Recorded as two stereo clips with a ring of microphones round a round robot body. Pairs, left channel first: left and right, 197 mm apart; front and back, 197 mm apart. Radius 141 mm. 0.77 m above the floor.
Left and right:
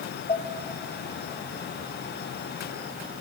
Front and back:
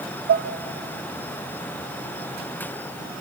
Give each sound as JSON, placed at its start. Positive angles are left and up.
{"t": 0.3, "sound": "dishes clattering", "azimuth_deg": 165, "distance_m": 1.0}